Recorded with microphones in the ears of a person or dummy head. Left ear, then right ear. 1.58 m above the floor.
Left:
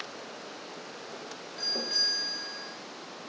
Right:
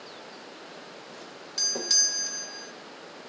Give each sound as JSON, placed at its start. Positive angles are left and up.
{"t": 1.1, "sound": "a doorbell", "side_deg": -80, "distance_m": 2.0}